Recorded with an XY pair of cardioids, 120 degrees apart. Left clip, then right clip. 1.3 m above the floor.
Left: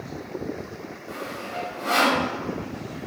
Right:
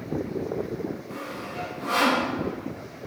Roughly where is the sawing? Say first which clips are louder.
Left 2 dB; left.